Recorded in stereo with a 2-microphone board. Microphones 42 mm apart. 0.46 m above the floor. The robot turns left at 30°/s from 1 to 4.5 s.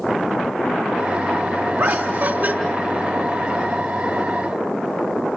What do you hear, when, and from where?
1.8 s laughter: 65° right (ahead or behind), 3.5 m; by 2.5 s 45° right (ahead or behind), 3.5 m